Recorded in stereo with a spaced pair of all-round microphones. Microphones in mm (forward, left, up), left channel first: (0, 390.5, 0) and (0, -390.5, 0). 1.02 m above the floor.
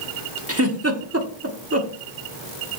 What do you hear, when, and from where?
0.5 s a giggle: 20° right (ahead or behind), 1.2 m